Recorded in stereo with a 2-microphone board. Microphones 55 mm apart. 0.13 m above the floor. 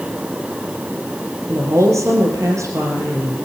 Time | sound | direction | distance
1.5 | a woman speaking | 65° right (ahead or behind) | 3.5 m